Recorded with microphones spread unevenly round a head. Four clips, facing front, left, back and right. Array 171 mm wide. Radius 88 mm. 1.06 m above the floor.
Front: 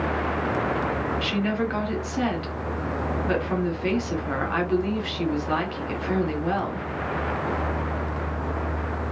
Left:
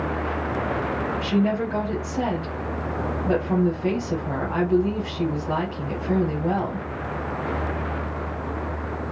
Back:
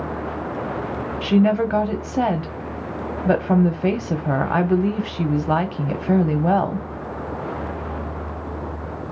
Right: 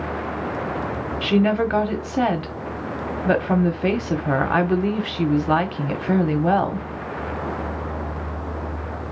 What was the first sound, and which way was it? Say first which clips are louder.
A woman speaking: right 5 dB, back 8 dB; 135° right.